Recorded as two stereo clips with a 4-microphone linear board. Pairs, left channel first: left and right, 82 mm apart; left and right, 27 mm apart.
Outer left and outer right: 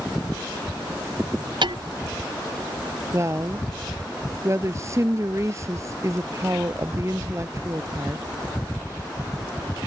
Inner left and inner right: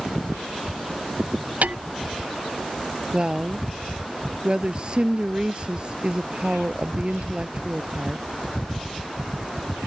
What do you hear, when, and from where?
1.6 s hammering: 70° right (ahead or behind)
3.1 s a woman speaking: 35° right (ahead or behind)